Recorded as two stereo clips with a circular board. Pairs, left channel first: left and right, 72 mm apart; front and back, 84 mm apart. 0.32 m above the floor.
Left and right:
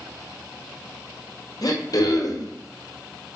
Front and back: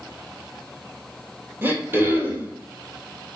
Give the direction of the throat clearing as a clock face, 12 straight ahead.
8 o'clock.